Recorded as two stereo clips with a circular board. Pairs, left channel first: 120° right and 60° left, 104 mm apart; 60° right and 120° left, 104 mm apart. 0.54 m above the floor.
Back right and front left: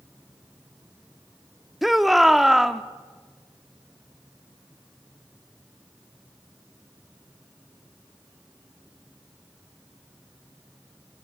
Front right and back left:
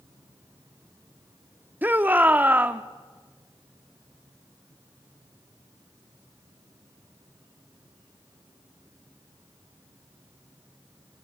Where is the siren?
I don't hear a siren.